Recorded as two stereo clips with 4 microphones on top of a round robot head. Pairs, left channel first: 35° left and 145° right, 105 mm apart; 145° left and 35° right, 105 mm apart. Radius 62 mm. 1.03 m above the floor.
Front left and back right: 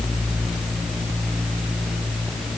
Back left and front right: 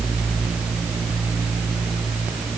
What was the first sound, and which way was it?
Only background noise.